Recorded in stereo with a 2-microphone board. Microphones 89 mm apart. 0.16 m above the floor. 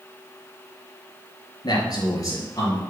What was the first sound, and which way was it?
A man speaking, 50° left (ahead or behind).